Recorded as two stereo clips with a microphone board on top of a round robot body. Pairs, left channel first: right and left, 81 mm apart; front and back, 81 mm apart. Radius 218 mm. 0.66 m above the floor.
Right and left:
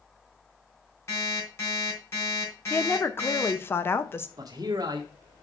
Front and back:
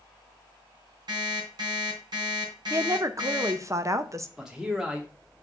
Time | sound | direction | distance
1.1 | an alarm clock | 145° right | 4 m
2.7 | a woman speaking | 145° right | 1.0 m
4.4 | a man speaking | 100° left | 1.5 m